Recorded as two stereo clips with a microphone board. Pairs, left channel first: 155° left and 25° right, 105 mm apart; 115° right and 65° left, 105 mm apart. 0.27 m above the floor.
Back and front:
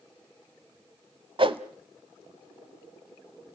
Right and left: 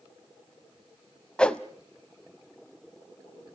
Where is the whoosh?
35° right, 0.9 m.